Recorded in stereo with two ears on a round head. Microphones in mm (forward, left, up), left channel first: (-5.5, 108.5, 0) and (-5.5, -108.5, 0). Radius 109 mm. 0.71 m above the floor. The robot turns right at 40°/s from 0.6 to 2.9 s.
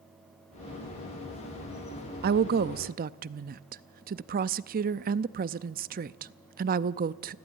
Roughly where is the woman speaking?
Right.